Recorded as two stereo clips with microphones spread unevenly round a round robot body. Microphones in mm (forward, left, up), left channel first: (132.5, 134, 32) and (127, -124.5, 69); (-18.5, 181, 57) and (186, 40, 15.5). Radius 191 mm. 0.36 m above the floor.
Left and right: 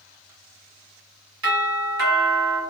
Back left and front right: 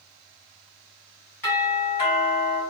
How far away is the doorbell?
About 1.9 m.